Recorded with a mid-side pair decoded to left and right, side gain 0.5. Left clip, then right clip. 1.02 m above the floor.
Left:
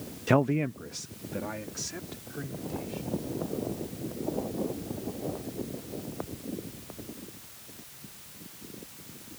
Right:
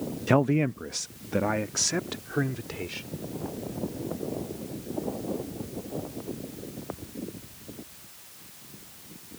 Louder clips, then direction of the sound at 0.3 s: Right 2 dB; straight ahead.